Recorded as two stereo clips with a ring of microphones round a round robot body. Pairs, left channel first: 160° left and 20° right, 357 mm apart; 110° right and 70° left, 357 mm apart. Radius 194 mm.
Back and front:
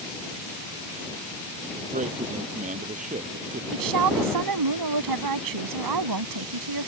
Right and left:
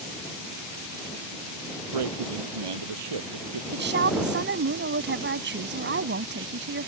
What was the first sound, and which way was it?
A man speaking, 50° left.